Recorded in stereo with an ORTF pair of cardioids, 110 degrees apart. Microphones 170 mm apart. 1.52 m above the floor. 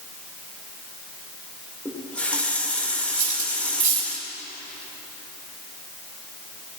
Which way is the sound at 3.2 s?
50° right.